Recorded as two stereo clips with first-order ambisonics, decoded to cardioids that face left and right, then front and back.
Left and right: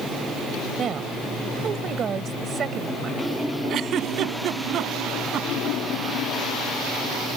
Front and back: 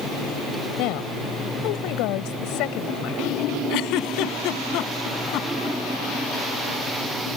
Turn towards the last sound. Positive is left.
turn(degrees=-35)